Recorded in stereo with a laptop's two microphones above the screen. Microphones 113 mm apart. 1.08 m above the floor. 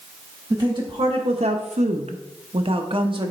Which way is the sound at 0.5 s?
35° right (ahead or behind).